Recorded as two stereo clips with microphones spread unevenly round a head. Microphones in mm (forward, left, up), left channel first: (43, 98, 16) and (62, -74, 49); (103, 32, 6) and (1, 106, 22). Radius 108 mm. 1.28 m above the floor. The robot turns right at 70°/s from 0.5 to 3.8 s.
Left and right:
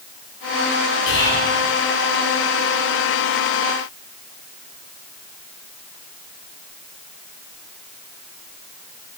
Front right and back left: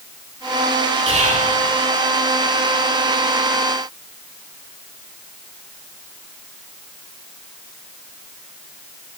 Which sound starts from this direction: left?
Whispering, at 1.1 s.